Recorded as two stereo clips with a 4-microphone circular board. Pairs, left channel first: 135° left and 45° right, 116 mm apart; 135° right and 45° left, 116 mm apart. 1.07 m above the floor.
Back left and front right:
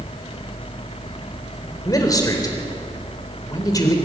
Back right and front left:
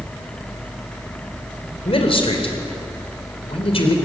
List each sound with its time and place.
1.9 s a man speaking: 170° right, 3.5 m